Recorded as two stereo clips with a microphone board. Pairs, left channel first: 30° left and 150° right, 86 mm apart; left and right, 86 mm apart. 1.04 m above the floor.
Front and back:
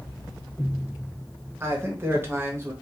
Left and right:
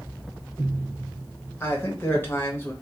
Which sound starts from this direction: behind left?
A man speaking, at 1.6 s.